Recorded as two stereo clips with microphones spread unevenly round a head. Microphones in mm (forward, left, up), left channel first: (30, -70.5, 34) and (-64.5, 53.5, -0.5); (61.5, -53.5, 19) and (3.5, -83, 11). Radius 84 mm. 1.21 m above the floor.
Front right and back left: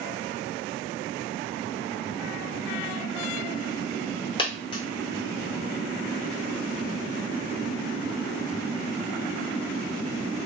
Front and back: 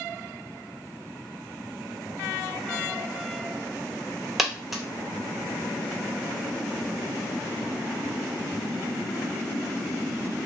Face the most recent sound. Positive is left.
turn(degrees=-55)